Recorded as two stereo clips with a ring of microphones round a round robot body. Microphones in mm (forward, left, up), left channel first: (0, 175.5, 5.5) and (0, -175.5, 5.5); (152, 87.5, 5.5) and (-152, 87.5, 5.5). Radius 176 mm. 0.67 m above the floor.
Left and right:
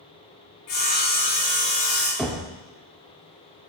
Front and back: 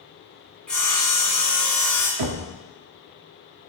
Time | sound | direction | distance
0.7 | sawing | 85° left | 3 m
2.2 | knocking | straight behind | 0.8 m